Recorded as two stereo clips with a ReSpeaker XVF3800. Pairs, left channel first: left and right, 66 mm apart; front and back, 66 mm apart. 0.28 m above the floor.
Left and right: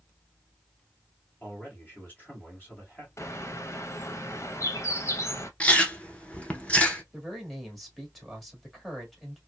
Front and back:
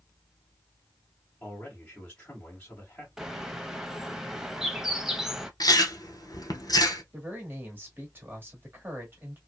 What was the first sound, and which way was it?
A man speaking, 60° left.